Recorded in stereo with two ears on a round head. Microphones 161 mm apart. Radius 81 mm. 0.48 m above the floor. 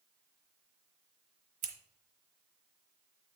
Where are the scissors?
45° right (ahead or behind), 1.2 m.